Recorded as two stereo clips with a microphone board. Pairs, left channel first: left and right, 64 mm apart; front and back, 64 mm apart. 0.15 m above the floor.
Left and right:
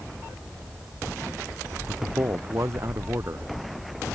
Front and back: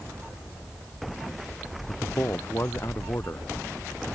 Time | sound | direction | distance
1.9 | a man speaking | 50° right | ?